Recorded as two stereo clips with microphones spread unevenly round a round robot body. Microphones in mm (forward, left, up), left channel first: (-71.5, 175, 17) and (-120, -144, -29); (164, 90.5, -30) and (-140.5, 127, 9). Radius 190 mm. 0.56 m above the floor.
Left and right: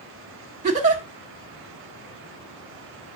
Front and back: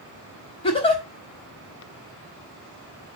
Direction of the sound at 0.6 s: 60° right.